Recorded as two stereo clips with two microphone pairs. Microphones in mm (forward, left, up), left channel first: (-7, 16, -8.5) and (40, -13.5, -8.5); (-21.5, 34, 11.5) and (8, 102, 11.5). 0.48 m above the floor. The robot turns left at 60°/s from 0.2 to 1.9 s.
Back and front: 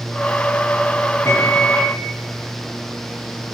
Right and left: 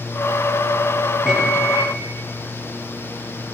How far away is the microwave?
About 8 m.